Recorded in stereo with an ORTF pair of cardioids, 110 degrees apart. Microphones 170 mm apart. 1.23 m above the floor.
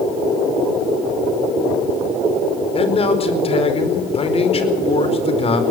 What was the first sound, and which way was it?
A man speaking, 35° left.